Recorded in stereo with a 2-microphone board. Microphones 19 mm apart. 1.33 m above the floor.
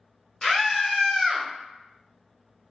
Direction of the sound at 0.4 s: 20° left (ahead or behind).